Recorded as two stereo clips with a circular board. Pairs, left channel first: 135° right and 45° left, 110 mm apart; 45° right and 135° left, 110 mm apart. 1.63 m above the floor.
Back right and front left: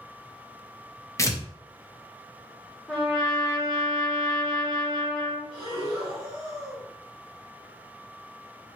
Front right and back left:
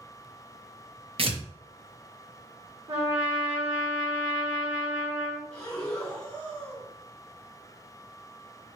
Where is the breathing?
125° right, 2 m.